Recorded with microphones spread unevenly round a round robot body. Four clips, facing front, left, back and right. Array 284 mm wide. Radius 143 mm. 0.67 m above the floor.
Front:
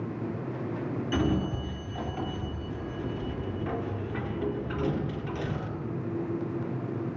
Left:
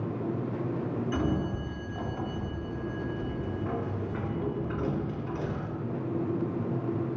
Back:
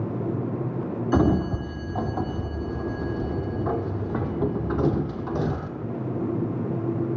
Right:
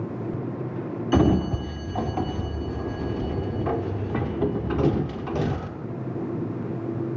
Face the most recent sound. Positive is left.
turn(degrees=-125)